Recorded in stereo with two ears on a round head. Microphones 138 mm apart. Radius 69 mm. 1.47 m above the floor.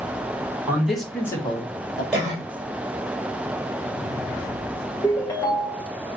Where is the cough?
5° right (ahead or behind), 2 m.